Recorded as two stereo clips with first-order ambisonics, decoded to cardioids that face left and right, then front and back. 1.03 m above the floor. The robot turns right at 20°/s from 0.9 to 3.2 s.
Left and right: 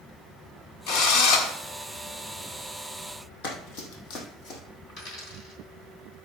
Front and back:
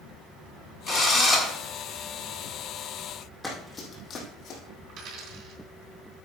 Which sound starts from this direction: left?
Running footsteps, at 3.4 s.